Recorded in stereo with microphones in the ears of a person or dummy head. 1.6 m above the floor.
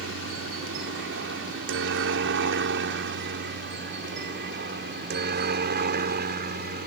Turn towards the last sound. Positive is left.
turn(degrees=-45)  # may be behind; listen again after turning